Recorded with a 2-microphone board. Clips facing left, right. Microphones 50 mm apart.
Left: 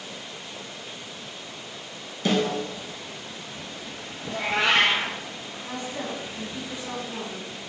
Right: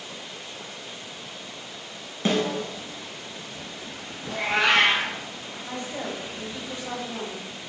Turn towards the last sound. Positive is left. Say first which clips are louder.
# even
turn(degrees=-45)  # may be behind; listen again after turning